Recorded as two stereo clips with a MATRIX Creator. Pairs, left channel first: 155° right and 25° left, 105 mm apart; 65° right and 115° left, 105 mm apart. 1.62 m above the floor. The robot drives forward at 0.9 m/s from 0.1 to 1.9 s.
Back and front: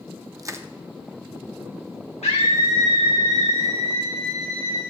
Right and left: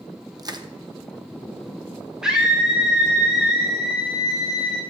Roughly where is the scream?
Behind.